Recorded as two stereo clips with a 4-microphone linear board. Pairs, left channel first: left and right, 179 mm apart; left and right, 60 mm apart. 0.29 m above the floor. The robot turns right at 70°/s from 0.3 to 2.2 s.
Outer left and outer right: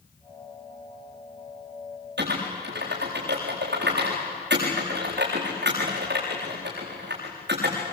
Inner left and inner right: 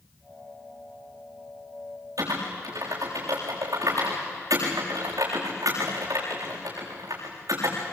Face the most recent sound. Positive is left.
turn(degrees=-85)